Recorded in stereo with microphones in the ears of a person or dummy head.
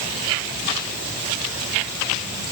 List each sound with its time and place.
Only background noise.